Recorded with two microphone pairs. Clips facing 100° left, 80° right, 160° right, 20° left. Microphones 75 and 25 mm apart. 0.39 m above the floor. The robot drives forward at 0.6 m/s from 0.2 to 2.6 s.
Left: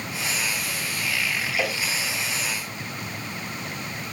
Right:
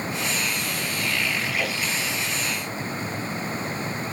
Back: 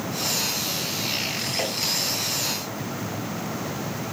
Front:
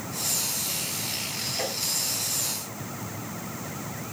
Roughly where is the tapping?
Behind left.